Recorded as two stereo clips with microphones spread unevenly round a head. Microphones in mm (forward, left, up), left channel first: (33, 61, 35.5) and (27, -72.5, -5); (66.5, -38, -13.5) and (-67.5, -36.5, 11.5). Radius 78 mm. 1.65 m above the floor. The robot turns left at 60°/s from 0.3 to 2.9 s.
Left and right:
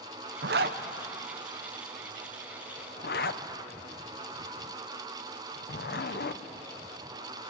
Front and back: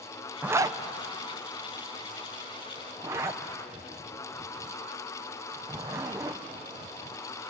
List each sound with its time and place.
0.4 s a zipper: 105° right, 1.0 m; by 6.4 s 105° left, 1.0 m